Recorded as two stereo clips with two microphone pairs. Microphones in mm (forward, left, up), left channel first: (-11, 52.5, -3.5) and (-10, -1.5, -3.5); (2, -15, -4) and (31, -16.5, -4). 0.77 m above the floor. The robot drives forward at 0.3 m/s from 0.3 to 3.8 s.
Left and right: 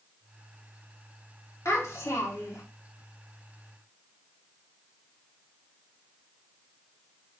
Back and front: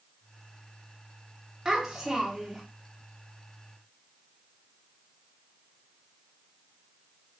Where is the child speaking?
65° left, 1.2 m; by 2.6 s 80° left, 1.1 m.